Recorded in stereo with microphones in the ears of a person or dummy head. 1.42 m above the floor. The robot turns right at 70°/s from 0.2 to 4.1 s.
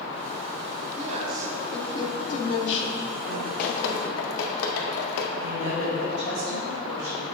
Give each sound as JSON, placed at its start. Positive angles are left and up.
{"t": 1.0, "sound": "a woman speaking", "azimuth_deg": -40, "distance_m": 1.0}
{"t": 3.6, "sound": "dripping", "side_deg": 65, "distance_m": 0.8}
{"t": 5.4, "sound": "a woman speaking", "side_deg": -75, "distance_m": 1.2}